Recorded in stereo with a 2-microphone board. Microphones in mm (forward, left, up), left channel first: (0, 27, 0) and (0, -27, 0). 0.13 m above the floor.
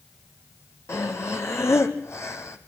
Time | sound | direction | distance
0.9 | breathing | 55° left (ahead or behind) | 1.9 m